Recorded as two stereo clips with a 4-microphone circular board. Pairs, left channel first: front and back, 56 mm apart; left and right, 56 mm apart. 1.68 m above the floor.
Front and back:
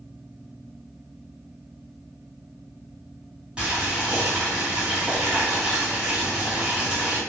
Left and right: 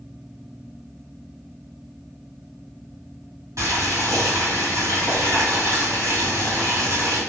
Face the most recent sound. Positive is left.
turn(degrees=-105)